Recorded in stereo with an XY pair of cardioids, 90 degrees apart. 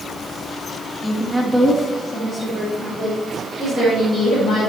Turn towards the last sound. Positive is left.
turn(degrees=55)